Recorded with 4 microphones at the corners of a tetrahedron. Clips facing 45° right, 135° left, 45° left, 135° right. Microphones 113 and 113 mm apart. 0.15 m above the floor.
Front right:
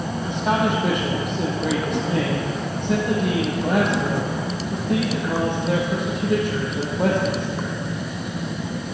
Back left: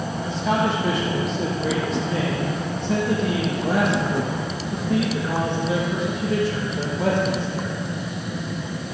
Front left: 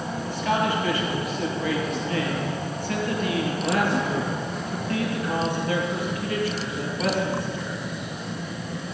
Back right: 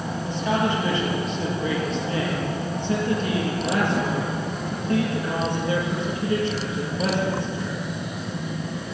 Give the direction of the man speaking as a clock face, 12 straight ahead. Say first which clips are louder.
Front right 1 dB, back right 1 dB; 2 o'clock.